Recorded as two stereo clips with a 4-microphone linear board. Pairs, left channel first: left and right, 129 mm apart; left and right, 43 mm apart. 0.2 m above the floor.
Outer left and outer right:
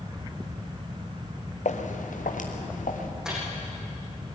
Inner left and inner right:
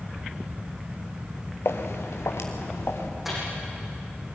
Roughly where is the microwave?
Centre.